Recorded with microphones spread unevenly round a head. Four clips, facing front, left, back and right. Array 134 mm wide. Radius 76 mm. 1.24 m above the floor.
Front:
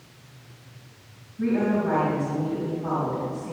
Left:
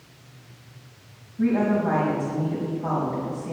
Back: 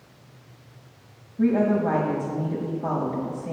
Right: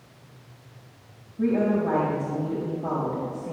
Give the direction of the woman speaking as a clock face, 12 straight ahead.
5 o'clock.